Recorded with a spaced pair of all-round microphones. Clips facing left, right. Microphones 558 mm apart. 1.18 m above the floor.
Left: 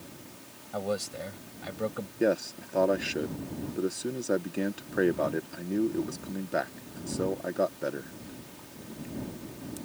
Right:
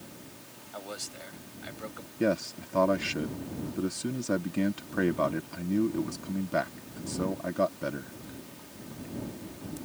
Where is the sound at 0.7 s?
75° left (ahead or behind).